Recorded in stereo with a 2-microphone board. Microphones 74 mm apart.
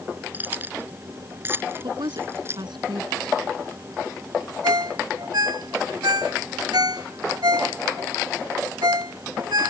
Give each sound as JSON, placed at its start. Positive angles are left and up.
{"t": 0.3, "sound": "keys jangling", "side_deg": -25}
{"t": 1.8, "sound": "a woman speaking", "side_deg": -80}
{"t": 4.6, "sound": "a ringtone", "side_deg": -70}